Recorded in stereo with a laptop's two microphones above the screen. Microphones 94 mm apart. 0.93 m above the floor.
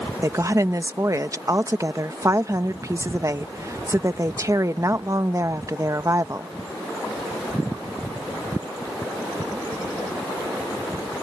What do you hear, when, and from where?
0.2 s a woman speaking: 35° right (ahead or behind)